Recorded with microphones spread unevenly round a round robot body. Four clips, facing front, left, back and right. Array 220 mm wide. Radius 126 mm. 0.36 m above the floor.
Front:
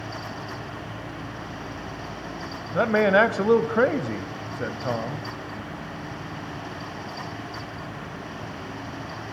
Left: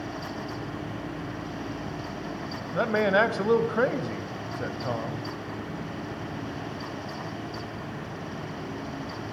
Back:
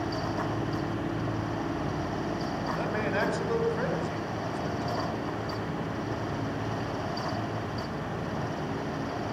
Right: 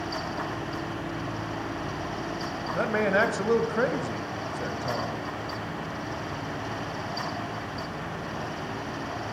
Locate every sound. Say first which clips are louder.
2.7 s a man speaking: left 2 dB, front 13 dB; 5° left, 2.5 m